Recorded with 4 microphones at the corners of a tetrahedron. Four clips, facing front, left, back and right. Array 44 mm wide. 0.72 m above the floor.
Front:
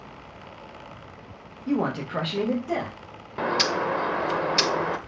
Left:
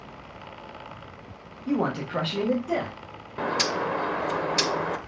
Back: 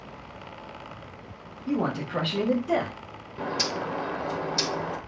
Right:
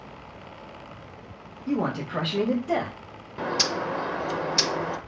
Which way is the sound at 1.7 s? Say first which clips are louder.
Left 1 dB, front 2 dB; 40° left.